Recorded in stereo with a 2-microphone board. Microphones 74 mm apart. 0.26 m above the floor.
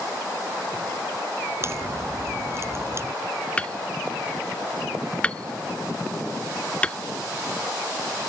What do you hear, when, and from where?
1.6 s a crack: 35° right (ahead or behind)
3.6 s hammering: 15° left (ahead or behind)